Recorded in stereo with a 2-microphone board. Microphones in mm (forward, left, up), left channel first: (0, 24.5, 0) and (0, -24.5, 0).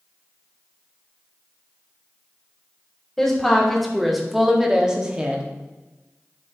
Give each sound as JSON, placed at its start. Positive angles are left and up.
{"t": 3.2, "sound": "a woman speaking", "side_deg": 5, "distance_m": 1.7}